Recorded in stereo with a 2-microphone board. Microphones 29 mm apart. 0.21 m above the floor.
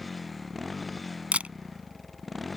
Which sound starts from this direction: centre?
A motorcycle, at 0.0 s.